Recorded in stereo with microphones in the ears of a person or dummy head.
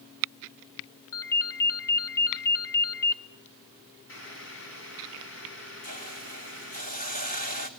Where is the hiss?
40° left (ahead or behind), 1.5 m.